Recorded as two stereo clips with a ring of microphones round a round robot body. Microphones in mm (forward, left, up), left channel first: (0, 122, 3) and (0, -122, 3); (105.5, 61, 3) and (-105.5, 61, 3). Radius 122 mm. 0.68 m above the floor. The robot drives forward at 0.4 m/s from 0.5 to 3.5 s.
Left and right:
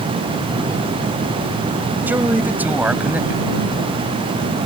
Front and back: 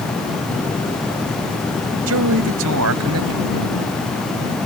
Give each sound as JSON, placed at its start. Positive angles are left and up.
{"t": 2.1, "sound": "a man speaking", "azimuth_deg": -175}